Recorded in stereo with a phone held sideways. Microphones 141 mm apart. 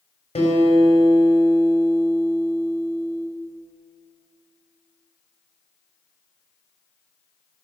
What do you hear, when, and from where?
0.3 s a guitar: 50° left (ahead or behind), 4 m